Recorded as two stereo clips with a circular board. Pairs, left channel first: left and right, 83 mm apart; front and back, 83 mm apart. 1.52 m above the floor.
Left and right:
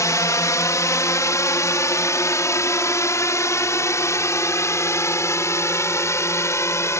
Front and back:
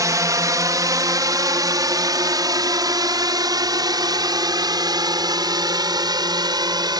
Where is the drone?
135° left; by 7.0 s 145° left.